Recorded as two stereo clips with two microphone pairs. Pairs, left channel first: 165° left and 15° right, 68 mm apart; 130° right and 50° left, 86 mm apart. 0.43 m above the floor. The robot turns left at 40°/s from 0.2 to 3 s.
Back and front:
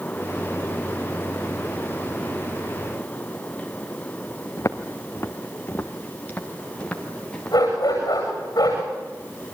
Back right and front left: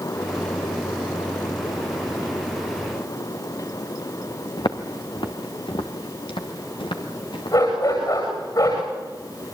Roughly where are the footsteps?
Behind right.